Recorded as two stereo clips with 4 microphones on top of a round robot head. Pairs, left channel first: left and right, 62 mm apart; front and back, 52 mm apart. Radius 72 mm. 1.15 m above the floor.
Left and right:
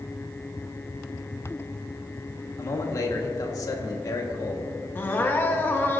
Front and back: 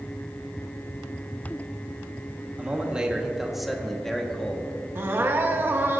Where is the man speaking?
115° left, 1.5 m; by 4.7 s 70° left, 1.7 m.